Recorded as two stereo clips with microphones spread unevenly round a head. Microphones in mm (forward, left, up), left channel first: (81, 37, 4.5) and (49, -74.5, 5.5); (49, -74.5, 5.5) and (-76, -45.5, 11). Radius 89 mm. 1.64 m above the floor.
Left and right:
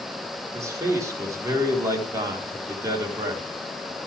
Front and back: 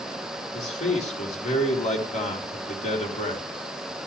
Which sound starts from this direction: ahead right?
A man speaking, at 0.5 s.